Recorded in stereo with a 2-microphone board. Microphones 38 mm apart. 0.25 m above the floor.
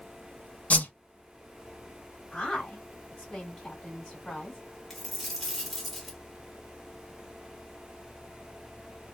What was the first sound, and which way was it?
A whoosh, 40° left (ahead or behind).